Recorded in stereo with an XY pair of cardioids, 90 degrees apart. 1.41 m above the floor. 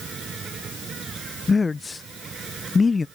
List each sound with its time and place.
0.0 s an insect: 55° right
1.5 s a man speaking: 30° left